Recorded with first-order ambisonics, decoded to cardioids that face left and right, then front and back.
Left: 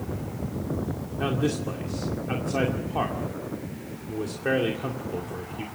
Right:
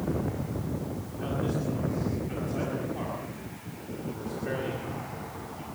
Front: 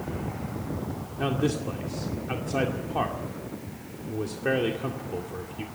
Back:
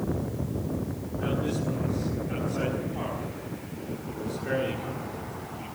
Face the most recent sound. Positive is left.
turn(degrees=45)